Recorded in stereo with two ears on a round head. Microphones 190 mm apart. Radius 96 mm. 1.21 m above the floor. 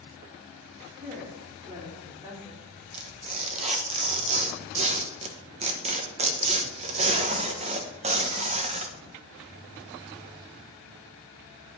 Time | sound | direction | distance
1.0 | a woman speaking | 35° right (ahead or behind) | 3.5 m
2.9 | tearing paper | 30° right (ahead or behind) | 1.1 m